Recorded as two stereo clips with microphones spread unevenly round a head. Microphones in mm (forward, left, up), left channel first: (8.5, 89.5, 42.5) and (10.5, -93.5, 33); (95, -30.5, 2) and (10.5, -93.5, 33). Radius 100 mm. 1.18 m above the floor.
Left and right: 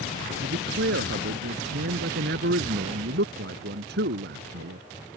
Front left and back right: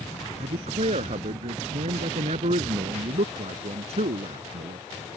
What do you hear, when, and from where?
0.4 s a man speaking: 125° right